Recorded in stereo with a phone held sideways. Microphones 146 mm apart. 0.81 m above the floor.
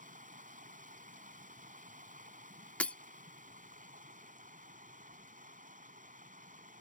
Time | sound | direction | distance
0.0 | running water | 70° right (ahead or behind) | ?
2.8 | breaking glass | 10° left (ahead or behind) | ?